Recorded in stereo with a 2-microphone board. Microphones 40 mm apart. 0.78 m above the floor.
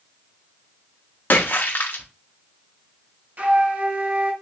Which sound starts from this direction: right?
A flute, at 3.4 s.